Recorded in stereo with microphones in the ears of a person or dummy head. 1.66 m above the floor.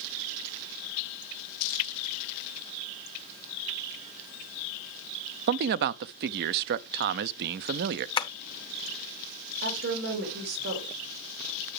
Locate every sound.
5.5 s a man speaking: 60° right (ahead or behind), 0.5 m
8.2 s tapping: 25° left (ahead or behind), 0.6 m
9.6 s a woman speaking: 60° right (ahead or behind), 3.5 m